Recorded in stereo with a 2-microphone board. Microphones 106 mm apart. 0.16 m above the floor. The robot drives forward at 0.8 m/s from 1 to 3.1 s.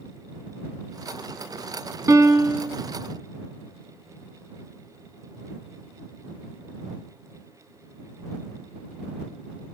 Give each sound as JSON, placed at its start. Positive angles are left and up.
{"t": 2.1, "sound": "a piano", "side_deg": -30, "distance_m": 0.7}